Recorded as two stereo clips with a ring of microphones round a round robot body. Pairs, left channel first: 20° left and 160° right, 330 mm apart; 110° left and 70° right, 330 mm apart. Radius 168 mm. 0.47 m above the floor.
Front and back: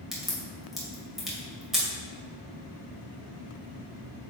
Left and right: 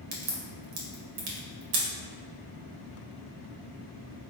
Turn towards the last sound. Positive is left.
turn(degrees=-70)